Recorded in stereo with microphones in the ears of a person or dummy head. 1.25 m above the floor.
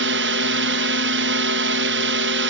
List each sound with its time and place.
0.0 s a drone: 60° right (ahead or behind)